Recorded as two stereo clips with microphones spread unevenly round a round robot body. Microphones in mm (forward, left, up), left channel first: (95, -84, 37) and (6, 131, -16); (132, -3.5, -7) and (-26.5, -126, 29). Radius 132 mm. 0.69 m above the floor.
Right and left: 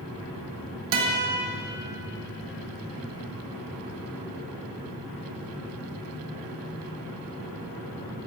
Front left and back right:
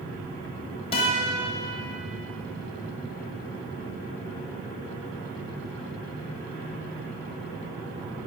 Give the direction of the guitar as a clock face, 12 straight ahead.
8 o'clock.